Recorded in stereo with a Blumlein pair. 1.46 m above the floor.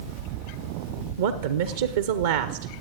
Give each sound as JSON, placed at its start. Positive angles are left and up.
{"t": 1.2, "sound": "a woman speaking", "azimuth_deg": -60, "distance_m": 0.7}